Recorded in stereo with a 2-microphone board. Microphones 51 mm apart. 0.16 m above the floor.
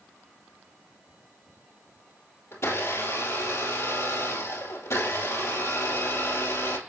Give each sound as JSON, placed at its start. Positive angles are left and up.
{"t": 2.5, "sound": "a blender", "side_deg": 60, "distance_m": 2.0}